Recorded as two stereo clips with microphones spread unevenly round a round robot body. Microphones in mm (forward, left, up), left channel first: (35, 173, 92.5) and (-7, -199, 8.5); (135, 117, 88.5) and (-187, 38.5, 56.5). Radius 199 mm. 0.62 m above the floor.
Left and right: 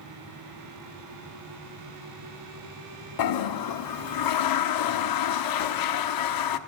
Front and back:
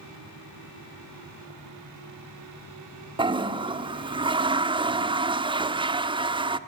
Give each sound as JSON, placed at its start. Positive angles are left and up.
{"t": 3.2, "sound": "a toilet flushing", "azimuth_deg": 120, "distance_m": 1.4}